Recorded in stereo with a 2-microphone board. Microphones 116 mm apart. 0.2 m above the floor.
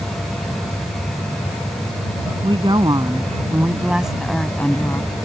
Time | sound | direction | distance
2.4 | a woman speaking | 45° right (ahead or behind) | ?